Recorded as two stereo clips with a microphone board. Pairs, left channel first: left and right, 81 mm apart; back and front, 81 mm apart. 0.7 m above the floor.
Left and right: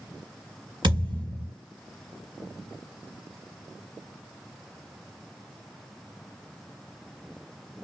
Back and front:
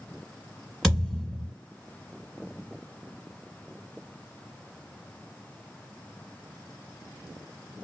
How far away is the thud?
About 1.6 m.